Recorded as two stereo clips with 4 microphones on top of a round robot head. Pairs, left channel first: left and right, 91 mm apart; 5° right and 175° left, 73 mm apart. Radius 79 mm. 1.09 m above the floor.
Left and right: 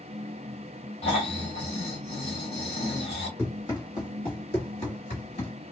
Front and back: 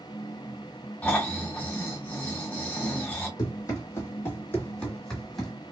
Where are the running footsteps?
20° left, 1.6 m; by 5.5 s 80° left, 1.7 m.